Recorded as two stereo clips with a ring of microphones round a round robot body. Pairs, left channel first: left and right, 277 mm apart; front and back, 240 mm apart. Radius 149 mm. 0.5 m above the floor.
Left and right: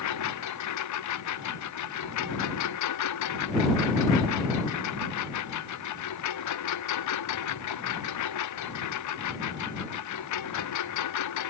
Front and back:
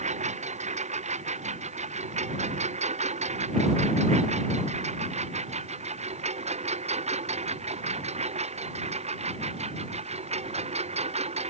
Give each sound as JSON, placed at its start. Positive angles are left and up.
{"t": 0.0, "sound": "a lawn mower", "azimuth_deg": 120}